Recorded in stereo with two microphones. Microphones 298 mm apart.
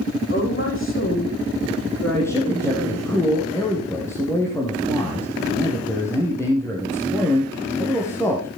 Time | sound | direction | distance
0.3 | a woman speaking | 40° left (ahead or behind) | 8.5 m
2.1 | a man speaking | 10° left (ahead or behind) | 4 m